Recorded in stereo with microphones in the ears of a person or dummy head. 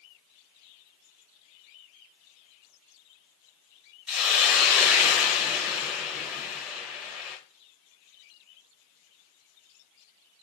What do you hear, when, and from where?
4.1 s a hiss: 10° right (ahead or behind), 0.9 m